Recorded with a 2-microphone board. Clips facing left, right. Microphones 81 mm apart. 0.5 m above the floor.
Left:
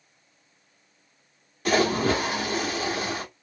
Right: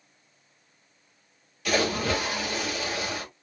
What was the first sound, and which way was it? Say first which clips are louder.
A splash: left 4 dB; 35° left (ahead or behind).